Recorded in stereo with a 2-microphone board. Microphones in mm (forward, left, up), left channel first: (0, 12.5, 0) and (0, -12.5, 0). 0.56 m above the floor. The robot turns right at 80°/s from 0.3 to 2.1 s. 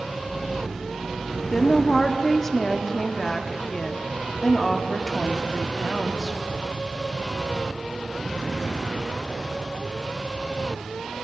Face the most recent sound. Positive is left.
turn(degrees=15)  # may be behind; listen again after turning